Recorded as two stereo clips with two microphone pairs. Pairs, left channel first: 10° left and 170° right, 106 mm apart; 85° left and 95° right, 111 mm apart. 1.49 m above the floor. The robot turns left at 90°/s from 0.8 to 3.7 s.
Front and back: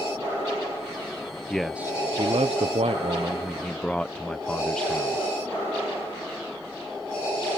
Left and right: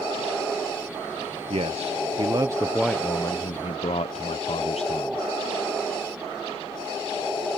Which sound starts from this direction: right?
A man speaking, at 1.5 s.